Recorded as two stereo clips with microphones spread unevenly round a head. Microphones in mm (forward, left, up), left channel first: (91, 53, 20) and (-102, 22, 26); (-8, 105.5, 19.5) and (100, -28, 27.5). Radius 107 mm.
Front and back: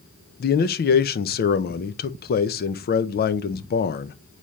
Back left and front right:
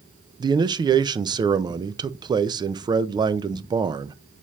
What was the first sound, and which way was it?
A man speaking, 10° left.